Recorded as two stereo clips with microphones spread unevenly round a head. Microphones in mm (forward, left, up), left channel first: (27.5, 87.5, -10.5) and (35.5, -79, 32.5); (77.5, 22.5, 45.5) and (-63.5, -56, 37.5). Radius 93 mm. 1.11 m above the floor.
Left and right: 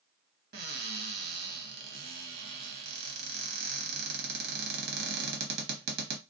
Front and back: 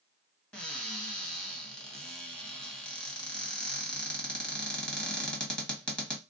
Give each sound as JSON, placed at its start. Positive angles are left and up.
{"t": 0.5, "sound": "a cupboard door", "azimuth_deg": -55, "distance_m": 0.9}